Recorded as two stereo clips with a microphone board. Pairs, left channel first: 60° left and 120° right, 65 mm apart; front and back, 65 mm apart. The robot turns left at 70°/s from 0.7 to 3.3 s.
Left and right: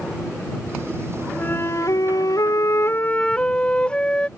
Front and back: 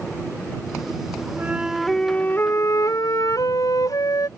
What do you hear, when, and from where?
1.4 s a flute: 120° left; by 4.3 s 10° right